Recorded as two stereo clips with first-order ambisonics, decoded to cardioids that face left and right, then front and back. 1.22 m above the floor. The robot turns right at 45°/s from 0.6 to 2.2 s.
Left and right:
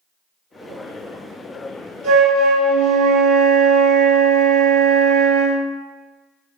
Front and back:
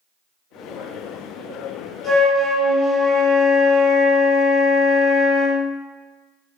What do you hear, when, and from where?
2.0 s a flute: 75° right, 1.2 m; by 5.6 s 70° right, 1.2 m